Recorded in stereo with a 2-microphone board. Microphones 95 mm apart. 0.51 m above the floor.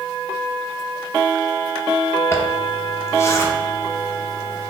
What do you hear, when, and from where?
2.3 s a zipper: 30° left (ahead or behind), 0.5 m